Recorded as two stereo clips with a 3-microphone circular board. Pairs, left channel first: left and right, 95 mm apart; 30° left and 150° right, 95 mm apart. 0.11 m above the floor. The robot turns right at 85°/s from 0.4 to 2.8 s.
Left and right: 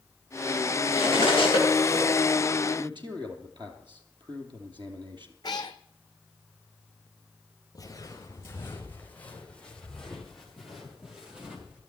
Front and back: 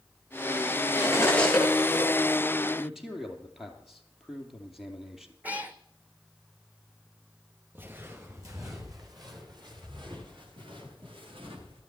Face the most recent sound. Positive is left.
turn(degrees=-165)